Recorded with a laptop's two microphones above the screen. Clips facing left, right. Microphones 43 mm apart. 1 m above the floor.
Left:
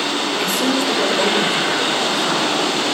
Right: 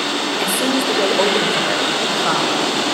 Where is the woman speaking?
5° right (ahead or behind), 2 m; by 2.8 s 30° right (ahead or behind), 5 m.